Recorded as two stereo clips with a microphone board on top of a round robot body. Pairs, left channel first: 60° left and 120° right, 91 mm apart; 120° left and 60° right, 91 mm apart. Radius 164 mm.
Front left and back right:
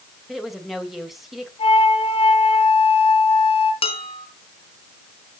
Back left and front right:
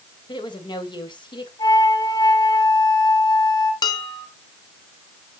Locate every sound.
0.3 s a woman speaking: 150° left, 3 m
1.6 s a flute: 75° left, 4.5 m
3.8 s dishes clattering: 75° left, 2.5 m